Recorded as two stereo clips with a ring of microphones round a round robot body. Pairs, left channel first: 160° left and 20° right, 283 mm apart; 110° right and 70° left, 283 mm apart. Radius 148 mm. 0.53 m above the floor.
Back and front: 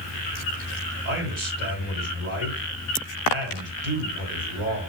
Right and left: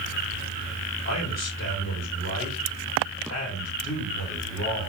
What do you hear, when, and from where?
1.1 s a man speaking: 70° right, 2.5 m